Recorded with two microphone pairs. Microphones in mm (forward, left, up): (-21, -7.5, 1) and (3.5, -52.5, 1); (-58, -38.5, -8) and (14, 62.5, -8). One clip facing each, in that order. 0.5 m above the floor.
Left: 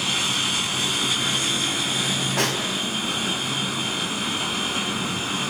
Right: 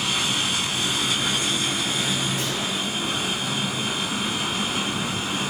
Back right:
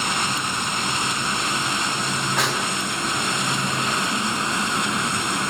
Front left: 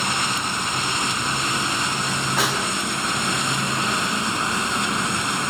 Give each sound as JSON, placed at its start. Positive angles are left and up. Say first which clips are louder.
{"t": 2.4, "sound": "a snare drum", "louder": "left 3 dB, front left 1 dB", "azimuth_deg": 145, "distance_m": 4.5}